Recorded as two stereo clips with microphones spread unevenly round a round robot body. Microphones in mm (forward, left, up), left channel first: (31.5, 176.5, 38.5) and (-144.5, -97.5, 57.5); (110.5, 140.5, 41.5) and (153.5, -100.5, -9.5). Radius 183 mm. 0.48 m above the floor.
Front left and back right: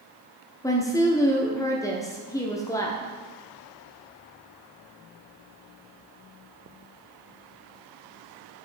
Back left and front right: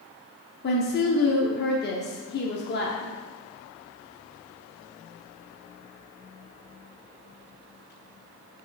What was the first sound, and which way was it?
A woman speaking, 120° left.